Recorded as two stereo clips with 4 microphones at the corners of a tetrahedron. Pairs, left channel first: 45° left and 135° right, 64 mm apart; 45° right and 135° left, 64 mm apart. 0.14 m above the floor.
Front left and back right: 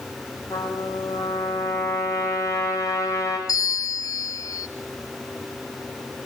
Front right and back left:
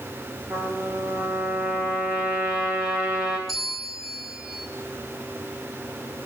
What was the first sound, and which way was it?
A trumpet, 80° left.